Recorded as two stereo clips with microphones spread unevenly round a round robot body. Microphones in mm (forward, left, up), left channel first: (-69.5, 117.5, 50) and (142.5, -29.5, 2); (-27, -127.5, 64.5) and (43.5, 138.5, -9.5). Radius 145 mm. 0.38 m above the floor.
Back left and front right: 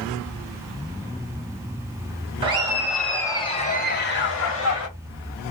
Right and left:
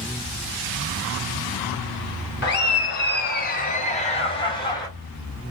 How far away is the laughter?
About 0.9 m.